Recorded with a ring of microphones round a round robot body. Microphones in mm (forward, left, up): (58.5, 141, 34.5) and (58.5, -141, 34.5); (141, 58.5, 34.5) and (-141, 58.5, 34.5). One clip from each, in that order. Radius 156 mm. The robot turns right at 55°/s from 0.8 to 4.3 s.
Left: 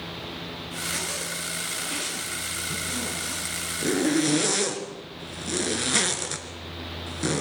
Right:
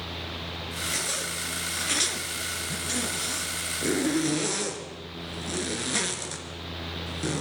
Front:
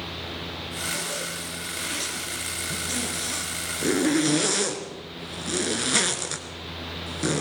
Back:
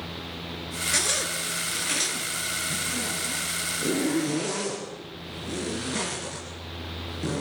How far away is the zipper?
About 2.5 m.